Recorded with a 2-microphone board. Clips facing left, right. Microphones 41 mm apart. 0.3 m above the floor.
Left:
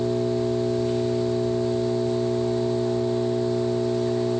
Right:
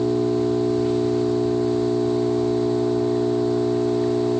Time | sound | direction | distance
0.0 | an engine running | 70° right (ahead or behind) | 10 m